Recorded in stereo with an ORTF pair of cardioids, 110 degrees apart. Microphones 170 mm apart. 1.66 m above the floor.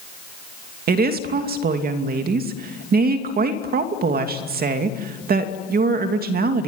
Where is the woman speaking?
65° right, 2.5 m.